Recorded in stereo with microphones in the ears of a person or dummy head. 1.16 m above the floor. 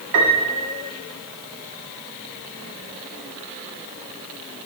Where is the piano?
65° right (ahead or behind), 1.4 m.